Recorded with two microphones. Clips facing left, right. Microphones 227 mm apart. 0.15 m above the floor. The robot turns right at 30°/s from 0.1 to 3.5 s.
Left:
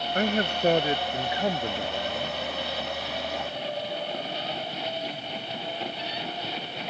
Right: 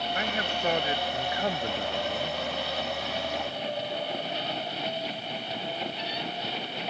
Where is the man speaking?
120° left; by 2.4 s 175° right.